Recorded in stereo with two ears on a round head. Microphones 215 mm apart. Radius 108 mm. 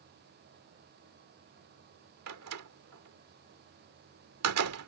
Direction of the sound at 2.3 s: 70° right (ahead or behind).